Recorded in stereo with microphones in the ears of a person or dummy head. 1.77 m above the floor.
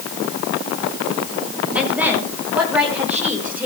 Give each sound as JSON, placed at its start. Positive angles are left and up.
{"t": 1.8, "sound": "a woman speaking", "side_deg": -10, "distance_m": 6.5}